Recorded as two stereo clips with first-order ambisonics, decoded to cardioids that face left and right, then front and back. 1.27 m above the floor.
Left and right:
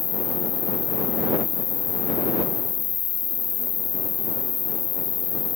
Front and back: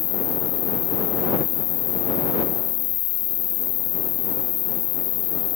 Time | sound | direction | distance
0.0 | an insect | 30° left | ?